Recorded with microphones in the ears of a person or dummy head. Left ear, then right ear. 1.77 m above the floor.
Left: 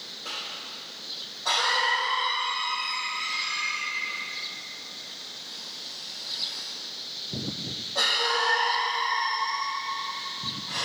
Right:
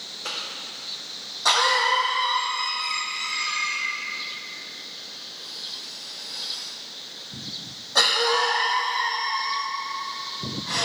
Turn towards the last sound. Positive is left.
turn(degrees=-65)  # may be behind; listen again after turning